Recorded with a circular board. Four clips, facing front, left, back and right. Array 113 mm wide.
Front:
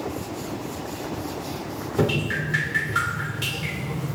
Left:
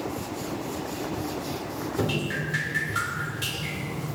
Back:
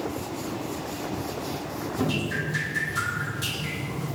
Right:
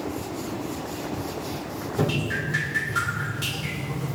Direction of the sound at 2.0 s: Straight ahead.